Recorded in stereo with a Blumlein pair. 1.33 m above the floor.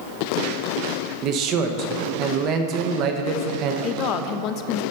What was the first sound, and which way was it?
A man speaking, 35° right.